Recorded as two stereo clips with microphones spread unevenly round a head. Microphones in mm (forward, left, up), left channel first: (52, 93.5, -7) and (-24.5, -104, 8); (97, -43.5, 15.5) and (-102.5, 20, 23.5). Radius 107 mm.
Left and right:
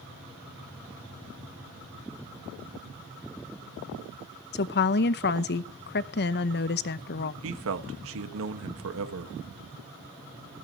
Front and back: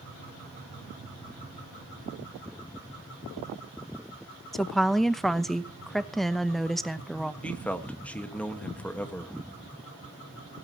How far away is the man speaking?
About 1.5 m.